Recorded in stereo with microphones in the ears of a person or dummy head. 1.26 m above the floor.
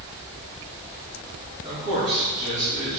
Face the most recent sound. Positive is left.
turn(degrees=-30)  # may be behind; listen again after turning